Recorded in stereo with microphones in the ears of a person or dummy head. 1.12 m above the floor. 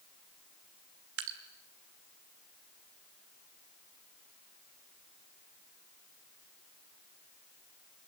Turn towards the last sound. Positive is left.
turn(degrees=-65)  # may be behind; listen again after turning